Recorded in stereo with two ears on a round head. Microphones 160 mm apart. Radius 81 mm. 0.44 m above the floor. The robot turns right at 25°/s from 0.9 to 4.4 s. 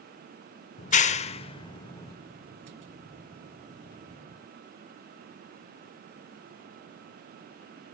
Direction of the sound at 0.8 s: 40° left (ahead or behind).